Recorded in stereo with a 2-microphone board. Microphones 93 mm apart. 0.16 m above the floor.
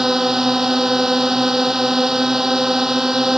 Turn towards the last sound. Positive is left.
turn(degrees=-5)  # may be behind; listen again after turning